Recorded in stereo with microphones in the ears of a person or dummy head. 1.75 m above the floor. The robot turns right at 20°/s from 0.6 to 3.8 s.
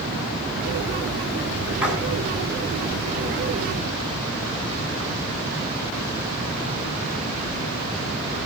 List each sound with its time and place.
1.8 s a splash: 5° right (ahead or behind), 7.5 m